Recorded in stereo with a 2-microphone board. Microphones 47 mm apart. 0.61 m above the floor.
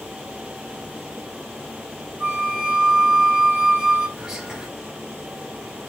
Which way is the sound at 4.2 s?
10° right (ahead or behind).